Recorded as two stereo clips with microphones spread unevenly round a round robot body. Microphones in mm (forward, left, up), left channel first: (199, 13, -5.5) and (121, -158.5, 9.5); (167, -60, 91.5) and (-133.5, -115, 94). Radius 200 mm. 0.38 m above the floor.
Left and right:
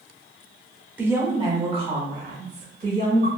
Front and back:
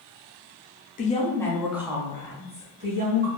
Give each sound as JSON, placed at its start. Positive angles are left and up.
{"t": 1.0, "sound": "a woman speaking", "azimuth_deg": -35, "distance_m": 0.9}